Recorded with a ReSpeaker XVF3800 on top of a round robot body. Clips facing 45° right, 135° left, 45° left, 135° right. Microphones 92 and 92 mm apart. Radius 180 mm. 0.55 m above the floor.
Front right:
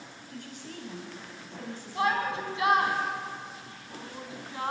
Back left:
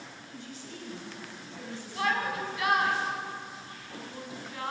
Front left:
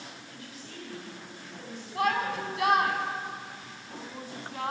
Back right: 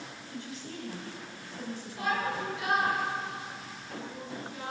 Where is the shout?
20° left, 4.5 m.